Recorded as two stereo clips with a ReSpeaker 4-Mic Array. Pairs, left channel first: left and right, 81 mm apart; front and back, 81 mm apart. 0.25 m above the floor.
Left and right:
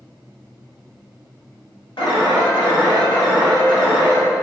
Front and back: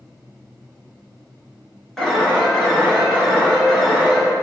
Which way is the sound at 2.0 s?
85° left.